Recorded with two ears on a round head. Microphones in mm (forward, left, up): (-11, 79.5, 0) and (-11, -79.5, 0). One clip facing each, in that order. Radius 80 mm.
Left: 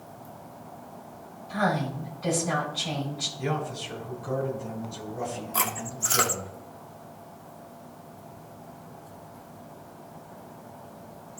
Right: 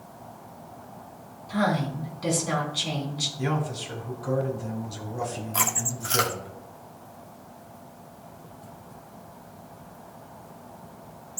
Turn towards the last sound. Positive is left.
turn(degrees=0)  # may be behind; listen again after turning